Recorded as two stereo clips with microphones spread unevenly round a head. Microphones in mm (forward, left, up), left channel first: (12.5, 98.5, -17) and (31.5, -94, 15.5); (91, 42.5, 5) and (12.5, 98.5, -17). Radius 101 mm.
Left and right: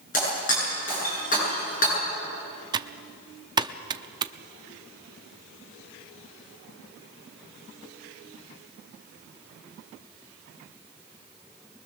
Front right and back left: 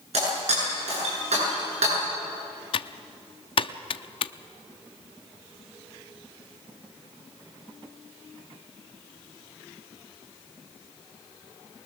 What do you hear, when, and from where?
0.1 s breaking glass: 150° left, 8.5 m
2.7 s typing on a keyboard: 20° right, 0.6 m